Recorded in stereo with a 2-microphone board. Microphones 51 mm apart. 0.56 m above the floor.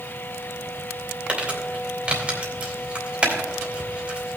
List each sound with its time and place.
1.3 s crumpling: 20° right (ahead or behind), 2.5 m